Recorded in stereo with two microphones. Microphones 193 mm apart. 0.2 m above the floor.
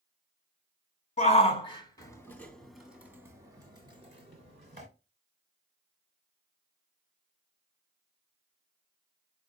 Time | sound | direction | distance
1.2 | a shout | 40° left (ahead or behind) | 1.5 m